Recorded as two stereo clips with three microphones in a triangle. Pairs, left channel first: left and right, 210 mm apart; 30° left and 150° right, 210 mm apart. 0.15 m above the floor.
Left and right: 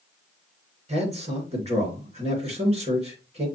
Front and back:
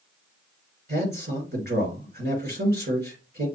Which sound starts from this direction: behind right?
A man speaking, at 0.9 s.